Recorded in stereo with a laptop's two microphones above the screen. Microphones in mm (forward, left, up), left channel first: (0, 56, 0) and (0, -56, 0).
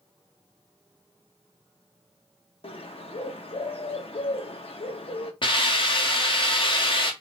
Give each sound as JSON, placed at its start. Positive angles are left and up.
{"t": 2.6, "sound": "a bird", "side_deg": 55, "distance_m": 0.8}
{"t": 5.4, "sound": "a hiss", "side_deg": 50, "distance_m": 0.9}